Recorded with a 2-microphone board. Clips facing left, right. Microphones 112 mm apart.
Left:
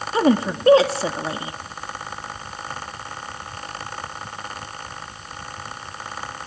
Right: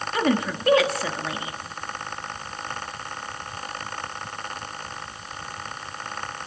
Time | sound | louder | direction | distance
0.1 | a woman speaking | left 5 dB | 30° left (ahead or behind) | 1.1 m